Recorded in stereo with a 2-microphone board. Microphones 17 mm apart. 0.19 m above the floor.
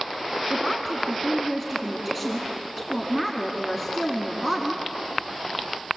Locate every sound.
0.5 s a woman speaking: 5° right (ahead or behind), 1.7 m